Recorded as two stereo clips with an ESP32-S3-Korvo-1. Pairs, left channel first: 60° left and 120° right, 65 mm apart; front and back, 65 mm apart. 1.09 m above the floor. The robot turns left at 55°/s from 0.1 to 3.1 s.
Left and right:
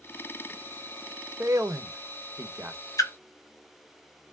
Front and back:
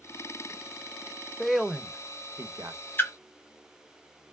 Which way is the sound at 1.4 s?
90° right.